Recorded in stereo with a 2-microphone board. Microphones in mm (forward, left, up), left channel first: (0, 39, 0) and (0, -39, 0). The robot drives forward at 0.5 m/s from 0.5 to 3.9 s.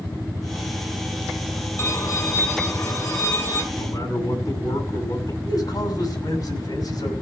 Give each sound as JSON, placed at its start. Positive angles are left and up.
{"t": 1.8, "sound": "a violin", "side_deg": 35, "distance_m": 4.5}
{"t": 3.8, "sound": "a man speaking", "side_deg": 50, "distance_m": 8.0}
{"t": 5.5, "sound": "a man speaking", "side_deg": 55, "distance_m": 6.0}